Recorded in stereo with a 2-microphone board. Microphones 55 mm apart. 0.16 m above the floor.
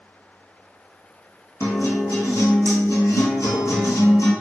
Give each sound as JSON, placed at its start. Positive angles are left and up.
{"t": 1.6, "sound": "a guitar", "side_deg": 70, "distance_m": 1.3}